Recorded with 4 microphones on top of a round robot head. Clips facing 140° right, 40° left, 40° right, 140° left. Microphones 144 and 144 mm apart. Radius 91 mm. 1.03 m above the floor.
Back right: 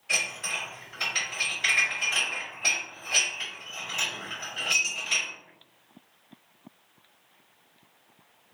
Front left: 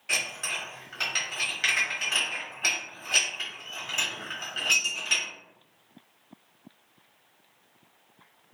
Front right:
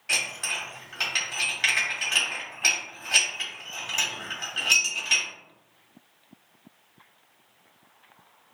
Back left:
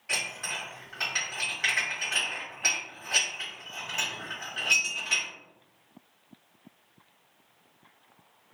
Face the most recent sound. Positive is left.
turn(degrees=20)